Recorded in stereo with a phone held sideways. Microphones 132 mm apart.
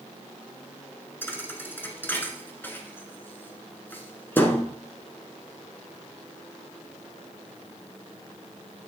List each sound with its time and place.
1.2 s a thud: 15° left (ahead or behind), 1.1 m